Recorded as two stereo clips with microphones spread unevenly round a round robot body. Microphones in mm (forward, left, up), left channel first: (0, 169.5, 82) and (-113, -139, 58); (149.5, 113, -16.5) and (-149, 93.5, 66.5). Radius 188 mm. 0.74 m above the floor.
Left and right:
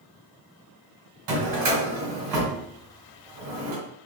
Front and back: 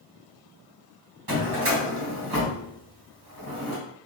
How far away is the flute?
No flute in this recording.